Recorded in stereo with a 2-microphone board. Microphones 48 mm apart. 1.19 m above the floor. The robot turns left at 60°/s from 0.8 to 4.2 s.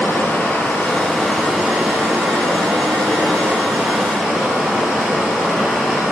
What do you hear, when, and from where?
0.0 s running water: 35° left, 5 m; by 6.1 s 170° right, 5 m